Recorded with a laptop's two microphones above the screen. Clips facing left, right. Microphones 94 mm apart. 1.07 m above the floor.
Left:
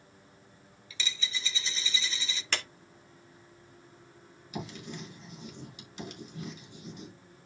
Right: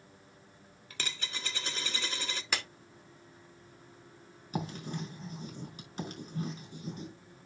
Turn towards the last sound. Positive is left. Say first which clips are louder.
# right 3 dB
turn(degrees=-40)  # may be behind; listen again after turning